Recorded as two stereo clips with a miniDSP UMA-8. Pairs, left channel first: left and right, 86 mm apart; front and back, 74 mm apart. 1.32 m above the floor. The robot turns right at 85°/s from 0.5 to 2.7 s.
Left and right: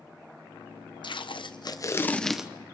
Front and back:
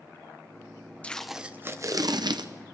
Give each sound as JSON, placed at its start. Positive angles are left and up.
{"t": 1.0, "sound": "tape being pulled", "azimuth_deg": 70, "distance_m": 0.8}